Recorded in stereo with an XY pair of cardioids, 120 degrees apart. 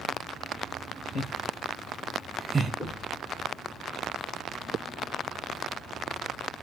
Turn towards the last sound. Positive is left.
turn(degrees=10)